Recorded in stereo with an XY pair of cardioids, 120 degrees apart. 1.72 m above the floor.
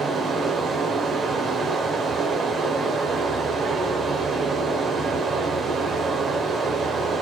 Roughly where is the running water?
Ahead right.